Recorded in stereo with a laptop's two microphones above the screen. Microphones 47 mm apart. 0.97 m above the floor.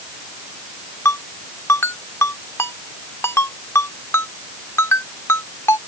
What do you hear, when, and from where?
1.1 s a ringtone: 85° left